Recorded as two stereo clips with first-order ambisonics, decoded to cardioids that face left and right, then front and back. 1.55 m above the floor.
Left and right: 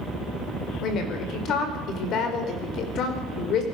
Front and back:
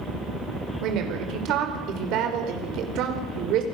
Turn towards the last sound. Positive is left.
turn(degrees=140)